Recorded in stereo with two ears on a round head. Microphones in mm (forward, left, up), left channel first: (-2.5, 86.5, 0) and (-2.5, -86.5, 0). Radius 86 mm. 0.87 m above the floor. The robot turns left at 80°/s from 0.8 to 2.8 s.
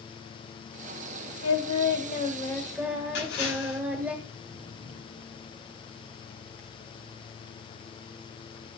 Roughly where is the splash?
Left.